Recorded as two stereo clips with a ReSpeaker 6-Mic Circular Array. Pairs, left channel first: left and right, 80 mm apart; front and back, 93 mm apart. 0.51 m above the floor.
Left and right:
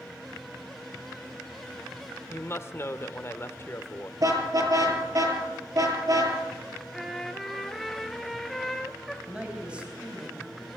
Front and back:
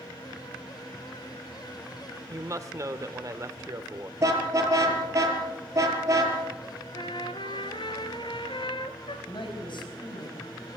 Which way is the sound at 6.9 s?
Straight ahead.